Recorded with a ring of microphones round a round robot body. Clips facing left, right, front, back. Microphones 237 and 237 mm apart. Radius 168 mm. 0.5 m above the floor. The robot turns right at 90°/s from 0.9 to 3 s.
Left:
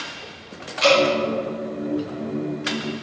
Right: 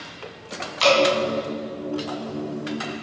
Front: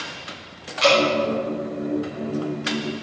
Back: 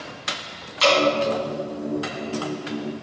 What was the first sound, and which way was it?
Dripping, 125° right.